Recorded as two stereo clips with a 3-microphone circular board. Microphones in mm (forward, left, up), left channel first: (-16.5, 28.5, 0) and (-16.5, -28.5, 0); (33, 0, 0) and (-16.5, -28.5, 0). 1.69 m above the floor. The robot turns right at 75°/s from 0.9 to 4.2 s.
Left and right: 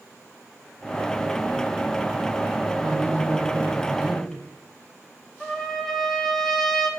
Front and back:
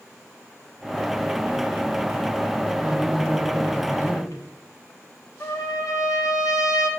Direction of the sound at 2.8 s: 85° right.